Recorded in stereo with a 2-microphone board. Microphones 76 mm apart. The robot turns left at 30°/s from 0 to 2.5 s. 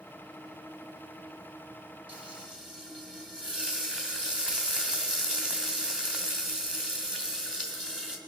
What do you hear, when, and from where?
2.1 s frying: 20° right (ahead or behind), 2.5 m; by 8.2 s 10° right (ahead or behind), 2.5 m